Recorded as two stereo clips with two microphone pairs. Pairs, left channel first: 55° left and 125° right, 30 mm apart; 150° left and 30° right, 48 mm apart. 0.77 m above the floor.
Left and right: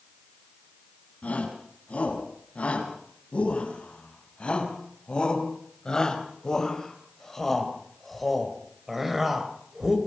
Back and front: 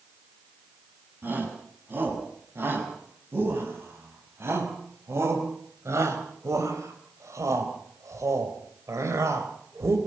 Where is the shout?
15° left, 7 m; by 10.0 s 55° right, 4 m.